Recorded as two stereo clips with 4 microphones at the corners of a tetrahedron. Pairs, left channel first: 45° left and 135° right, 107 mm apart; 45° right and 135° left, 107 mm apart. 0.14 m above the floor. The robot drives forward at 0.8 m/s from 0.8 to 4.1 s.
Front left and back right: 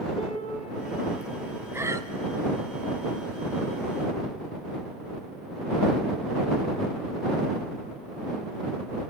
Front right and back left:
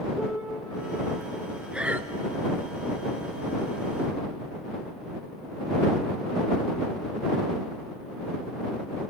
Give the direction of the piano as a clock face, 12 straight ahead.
10 o'clock.